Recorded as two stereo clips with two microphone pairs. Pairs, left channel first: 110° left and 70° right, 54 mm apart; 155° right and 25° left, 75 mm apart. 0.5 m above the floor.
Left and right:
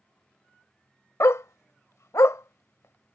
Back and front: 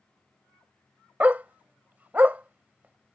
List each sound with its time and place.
1.2 s a dog barking: 100° left